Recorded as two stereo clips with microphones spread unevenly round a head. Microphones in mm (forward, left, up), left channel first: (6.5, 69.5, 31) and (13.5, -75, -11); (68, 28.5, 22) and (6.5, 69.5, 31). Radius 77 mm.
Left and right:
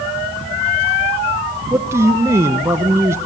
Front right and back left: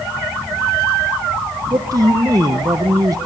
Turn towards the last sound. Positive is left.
turn(degrees=-155)